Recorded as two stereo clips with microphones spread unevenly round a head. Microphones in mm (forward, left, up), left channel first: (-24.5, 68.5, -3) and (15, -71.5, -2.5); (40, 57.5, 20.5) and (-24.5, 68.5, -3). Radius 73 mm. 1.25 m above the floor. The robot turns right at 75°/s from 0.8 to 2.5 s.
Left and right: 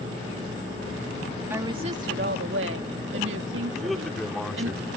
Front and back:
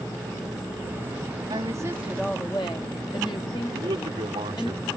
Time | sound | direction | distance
1.5 | a woman speaking | 150° right | ?
3.7 | a man speaking | 165° right | ?